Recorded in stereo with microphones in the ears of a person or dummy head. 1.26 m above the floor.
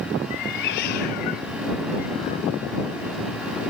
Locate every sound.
0.3 s a cat meowing: 40° left (ahead or behind)